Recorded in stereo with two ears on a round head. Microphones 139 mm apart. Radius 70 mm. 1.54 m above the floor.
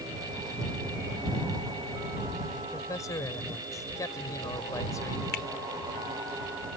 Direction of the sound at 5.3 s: 70° left (ahead or behind).